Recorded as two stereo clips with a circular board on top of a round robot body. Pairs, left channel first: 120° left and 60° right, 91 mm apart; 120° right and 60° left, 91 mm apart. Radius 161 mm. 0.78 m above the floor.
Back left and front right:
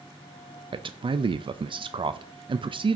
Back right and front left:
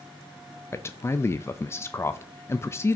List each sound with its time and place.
0.7 s a man speaking: 60° right, 0.5 m